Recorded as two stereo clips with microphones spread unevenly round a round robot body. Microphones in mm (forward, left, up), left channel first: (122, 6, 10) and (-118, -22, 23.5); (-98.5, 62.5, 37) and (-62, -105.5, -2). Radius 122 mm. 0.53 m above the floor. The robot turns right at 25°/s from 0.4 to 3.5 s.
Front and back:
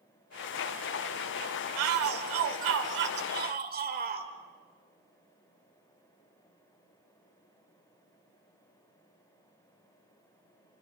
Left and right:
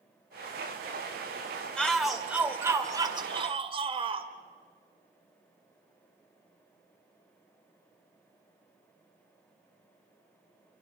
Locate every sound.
1.8 s a shout: 170° right, 2 m; by 4.3 s 125° right, 2 m